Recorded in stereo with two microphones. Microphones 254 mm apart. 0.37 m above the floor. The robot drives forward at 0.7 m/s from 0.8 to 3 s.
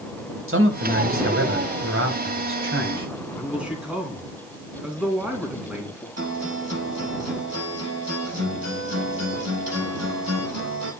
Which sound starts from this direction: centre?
A man speaking, at 3.4 s.